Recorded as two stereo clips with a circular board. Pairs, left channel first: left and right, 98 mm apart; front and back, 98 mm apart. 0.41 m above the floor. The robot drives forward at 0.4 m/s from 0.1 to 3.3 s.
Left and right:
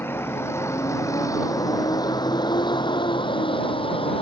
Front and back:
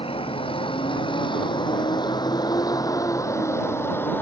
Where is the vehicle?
25° left; by 4.2 s 70° left.